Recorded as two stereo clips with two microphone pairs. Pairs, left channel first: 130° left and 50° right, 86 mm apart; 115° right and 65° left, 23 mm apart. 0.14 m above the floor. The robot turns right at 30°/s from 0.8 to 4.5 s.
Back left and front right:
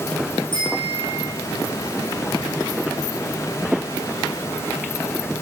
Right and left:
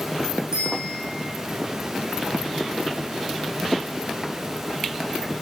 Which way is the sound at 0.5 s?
105° left.